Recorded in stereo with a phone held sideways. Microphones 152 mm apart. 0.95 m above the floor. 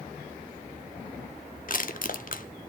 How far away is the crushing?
About 1.0 m.